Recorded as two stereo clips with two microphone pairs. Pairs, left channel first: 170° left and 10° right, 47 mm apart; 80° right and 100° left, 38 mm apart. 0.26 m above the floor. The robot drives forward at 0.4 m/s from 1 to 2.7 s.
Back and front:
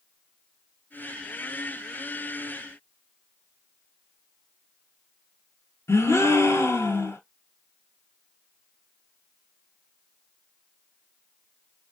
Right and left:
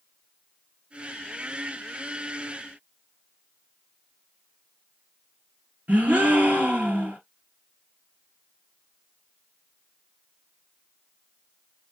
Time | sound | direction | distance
5.9 | a gasp | 150° left | 1.2 m